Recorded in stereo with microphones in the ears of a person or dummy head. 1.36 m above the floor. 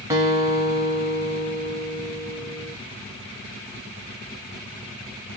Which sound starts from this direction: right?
A guitar, at 0.1 s.